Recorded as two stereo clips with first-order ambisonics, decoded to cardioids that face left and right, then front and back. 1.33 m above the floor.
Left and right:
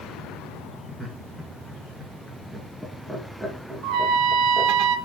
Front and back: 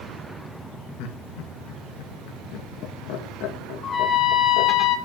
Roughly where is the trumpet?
Ahead right.